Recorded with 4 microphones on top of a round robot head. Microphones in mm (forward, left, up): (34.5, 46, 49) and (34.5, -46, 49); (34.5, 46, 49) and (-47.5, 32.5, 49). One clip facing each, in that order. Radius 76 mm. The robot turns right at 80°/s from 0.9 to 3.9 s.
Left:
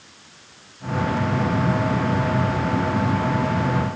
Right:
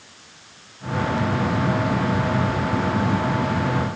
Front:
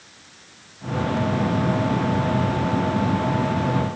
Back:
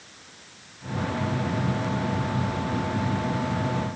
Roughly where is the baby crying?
No baby crying in this recording.